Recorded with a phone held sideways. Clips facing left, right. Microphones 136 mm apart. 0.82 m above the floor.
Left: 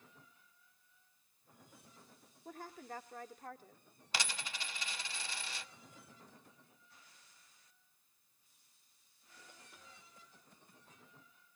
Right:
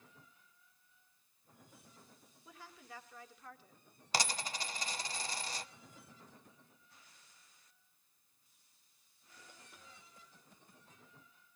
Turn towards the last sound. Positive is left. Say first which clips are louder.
# right 5 dB
turn(degrees=-40)  # may be behind; listen again after turning